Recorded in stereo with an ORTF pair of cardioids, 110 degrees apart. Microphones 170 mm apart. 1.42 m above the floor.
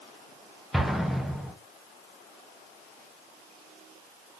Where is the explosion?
Straight ahead, 0.6 m.